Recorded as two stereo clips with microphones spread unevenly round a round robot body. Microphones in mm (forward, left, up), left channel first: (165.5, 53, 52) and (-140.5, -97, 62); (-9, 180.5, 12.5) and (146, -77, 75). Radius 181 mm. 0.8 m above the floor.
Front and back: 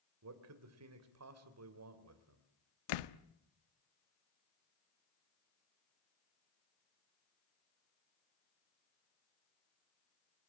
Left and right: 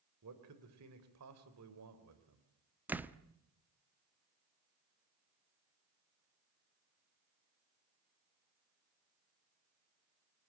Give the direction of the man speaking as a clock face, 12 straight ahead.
4 o'clock.